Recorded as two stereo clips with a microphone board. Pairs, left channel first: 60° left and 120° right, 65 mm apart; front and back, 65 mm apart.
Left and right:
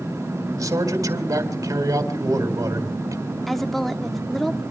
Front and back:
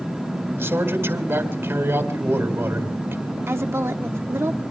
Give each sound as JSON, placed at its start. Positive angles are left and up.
{"t": 0.6, "sound": "a man speaking", "azimuth_deg": -130, "distance_m": 2.5}
{"t": 3.5, "sound": "a woman speaking", "azimuth_deg": 145, "distance_m": 1.1}